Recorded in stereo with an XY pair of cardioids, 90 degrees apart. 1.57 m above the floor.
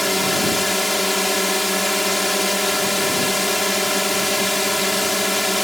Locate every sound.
0.0 s a drone: straight ahead